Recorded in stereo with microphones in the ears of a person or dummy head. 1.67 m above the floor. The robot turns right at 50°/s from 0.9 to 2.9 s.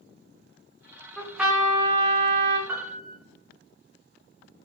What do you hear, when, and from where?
1.2 s a trumpet: 175° left, 0.5 m; by 2.6 s 115° right, 0.5 m
2.7 s a piano: 10° right (ahead or behind), 0.7 m; by 3.2 s 20° right (ahead or behind), 0.7 m